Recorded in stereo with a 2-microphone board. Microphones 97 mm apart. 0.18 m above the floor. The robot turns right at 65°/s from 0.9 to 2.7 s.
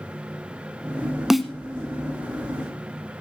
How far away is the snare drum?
About 0.9 m.